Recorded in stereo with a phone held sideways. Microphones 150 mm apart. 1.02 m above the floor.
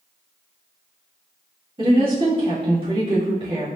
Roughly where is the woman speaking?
Right.